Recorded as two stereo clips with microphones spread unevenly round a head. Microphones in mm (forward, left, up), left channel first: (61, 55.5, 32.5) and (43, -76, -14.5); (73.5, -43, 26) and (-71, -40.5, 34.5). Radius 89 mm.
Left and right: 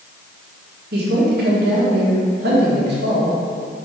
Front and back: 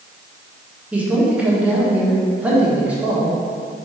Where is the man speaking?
100° right, 1.4 m.